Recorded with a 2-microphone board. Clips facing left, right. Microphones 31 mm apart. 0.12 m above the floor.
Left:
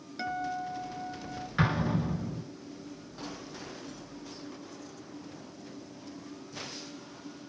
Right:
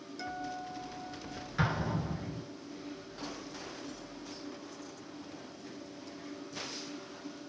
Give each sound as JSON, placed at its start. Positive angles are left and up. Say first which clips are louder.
{"t": 0.2, "sound": "a guitar", "louder": "left 6 dB", "side_deg": 35, "distance_m": 0.7}
{"t": 1.6, "sound": "an explosion", "louder": "left 4 dB", "side_deg": 25, "distance_m": 0.9}